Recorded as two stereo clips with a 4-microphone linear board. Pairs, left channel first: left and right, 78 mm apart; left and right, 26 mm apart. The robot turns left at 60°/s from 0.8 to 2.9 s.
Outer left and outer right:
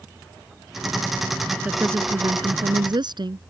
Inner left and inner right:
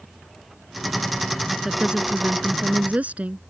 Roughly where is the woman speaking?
Ahead.